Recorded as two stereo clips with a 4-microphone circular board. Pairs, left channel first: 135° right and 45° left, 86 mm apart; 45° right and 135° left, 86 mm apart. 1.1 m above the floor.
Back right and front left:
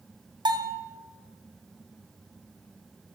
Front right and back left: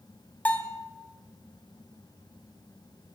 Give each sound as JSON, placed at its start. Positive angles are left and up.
{"t": 0.5, "sound": "a bell", "azimuth_deg": 25, "distance_m": 3.0}